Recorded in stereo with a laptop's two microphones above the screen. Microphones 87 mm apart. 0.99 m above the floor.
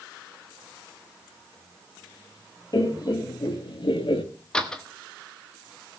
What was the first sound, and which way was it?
Laughter, 45° left (ahead or behind).